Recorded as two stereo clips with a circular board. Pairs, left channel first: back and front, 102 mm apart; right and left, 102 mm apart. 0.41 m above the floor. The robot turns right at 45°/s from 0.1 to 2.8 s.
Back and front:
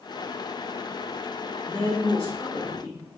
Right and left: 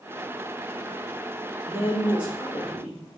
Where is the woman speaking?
125° left, 0.9 m; by 3.0 s 175° left, 0.9 m.